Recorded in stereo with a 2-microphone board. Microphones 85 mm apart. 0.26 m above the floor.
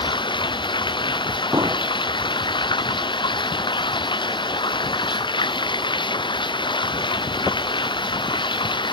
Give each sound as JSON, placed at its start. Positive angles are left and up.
{"t": 0.0, "sound": "running water", "side_deg": 80}
{"t": 1.5, "sound": "an explosion", "side_deg": -45}